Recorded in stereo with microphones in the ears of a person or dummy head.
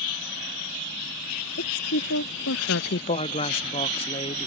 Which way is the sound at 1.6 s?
70° left (ahead or behind).